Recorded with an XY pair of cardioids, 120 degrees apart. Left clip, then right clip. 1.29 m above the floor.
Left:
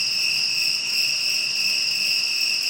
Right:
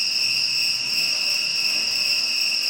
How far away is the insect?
About 0.8 m.